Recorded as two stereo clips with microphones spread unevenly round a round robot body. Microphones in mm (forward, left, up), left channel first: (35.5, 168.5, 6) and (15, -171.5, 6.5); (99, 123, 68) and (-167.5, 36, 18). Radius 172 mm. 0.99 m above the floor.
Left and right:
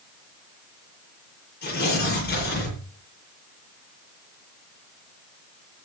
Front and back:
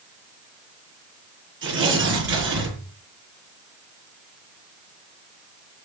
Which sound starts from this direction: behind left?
Tearing paper, at 1.6 s.